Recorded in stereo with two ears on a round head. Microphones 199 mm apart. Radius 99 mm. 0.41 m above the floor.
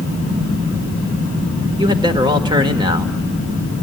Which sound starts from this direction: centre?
A man speaking, at 1.8 s.